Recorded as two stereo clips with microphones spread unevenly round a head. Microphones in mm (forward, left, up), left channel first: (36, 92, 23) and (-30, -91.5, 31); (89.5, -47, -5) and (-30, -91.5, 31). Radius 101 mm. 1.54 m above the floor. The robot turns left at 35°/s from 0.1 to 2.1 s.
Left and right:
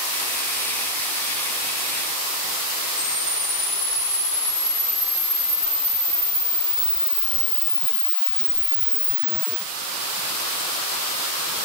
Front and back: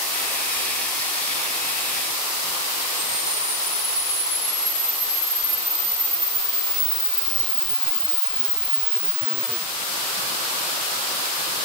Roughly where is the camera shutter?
Behind left.